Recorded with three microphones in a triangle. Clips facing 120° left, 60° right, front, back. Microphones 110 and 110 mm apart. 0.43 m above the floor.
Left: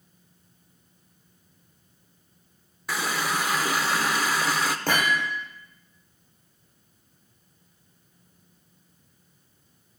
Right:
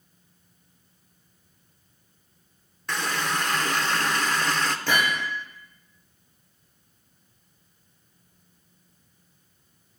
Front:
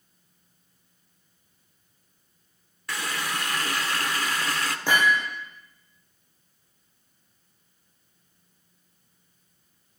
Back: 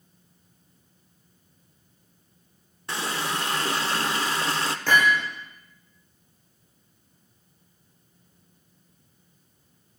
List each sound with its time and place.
2.9 s a running tap: 165° right, 0.6 m
4.9 s hammering: 80° left, 7 m